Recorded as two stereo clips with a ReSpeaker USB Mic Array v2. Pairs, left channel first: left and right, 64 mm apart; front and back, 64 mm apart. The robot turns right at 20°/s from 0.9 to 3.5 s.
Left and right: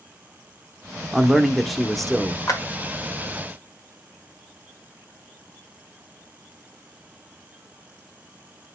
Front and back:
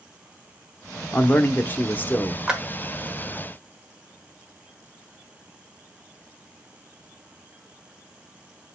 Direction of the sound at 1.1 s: 10° right.